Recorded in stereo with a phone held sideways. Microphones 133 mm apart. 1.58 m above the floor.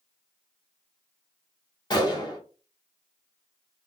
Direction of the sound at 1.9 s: 30° left (ahead or behind).